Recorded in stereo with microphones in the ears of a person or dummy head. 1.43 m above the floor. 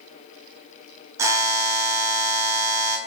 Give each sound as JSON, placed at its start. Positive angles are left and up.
{"t": 1.2, "sound": "a buzzer", "side_deg": -15, "distance_m": 0.7}